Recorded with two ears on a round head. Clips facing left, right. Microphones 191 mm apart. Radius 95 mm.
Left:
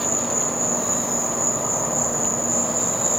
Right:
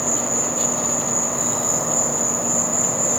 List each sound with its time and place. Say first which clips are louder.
0.0 s an insect: right 1 dB; 45° right (ahead or behind), 1.3 m